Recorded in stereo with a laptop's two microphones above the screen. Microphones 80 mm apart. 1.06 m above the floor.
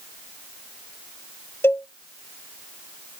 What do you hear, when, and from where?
1.6 s a cowbell: 30° left (ahead or behind), 0.9 m